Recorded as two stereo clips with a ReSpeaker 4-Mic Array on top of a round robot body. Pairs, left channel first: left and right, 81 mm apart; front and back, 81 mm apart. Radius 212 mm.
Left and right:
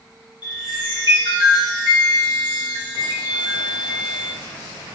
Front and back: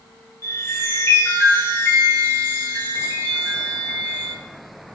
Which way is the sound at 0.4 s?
60° left.